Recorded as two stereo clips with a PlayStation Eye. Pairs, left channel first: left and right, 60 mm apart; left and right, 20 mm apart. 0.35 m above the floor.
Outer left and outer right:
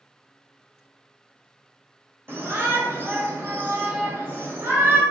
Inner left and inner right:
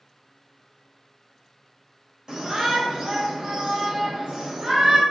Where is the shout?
40° right (ahead or behind), 1.3 m.